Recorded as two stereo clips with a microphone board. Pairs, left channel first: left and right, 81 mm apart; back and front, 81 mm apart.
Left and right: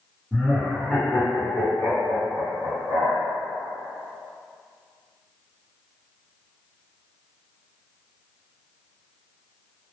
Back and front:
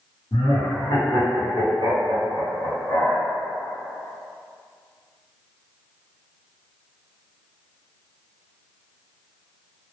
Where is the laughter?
170° right, 0.8 m; by 3.3 s 105° left, 1.5 m.